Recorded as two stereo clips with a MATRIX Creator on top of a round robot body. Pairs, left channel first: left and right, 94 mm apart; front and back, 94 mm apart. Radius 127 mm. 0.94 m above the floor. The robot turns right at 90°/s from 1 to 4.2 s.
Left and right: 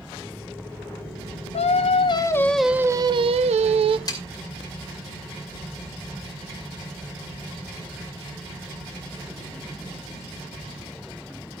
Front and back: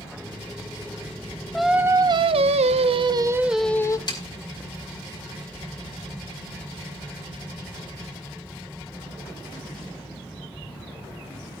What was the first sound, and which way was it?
Singing, 85° left.